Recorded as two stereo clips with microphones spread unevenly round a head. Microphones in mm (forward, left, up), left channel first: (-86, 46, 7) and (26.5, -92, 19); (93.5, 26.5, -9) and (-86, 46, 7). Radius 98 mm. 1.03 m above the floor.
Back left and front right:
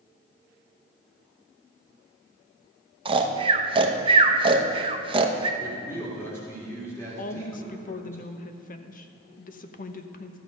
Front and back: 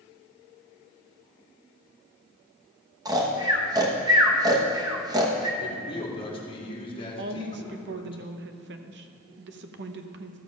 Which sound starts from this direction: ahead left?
A man speaking, at 5.6 s.